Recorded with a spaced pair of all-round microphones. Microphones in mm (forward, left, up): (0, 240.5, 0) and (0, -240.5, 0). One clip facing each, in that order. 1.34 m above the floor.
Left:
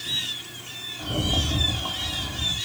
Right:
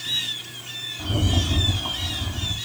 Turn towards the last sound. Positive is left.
turn(degrees=-35)  # may be behind; listen again after turning